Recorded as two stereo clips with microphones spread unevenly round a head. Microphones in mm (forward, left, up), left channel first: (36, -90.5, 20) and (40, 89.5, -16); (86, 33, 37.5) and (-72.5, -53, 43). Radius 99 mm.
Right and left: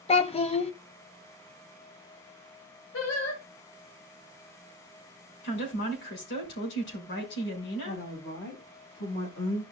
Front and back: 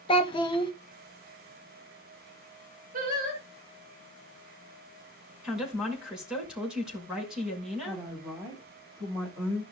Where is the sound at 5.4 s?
65° right, 5.5 m.